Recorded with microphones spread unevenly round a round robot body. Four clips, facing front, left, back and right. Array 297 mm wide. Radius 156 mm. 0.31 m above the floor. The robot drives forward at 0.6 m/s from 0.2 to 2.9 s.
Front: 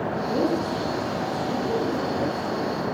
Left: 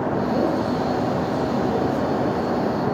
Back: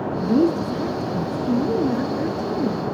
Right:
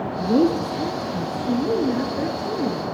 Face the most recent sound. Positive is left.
turn(degrees=-160)